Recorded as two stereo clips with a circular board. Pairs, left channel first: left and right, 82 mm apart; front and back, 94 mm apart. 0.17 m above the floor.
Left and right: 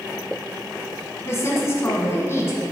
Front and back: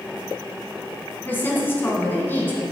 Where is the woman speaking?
55° left, 1.4 m.